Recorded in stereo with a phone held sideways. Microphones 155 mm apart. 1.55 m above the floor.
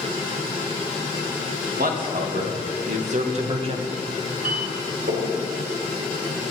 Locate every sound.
1.8 s a man speaking: 70° right (ahead or behind), 2.5 m; by 4.0 s 30° right (ahead or behind), 1.6 m
4.4 s a clink: 70° right (ahead or behind), 4 m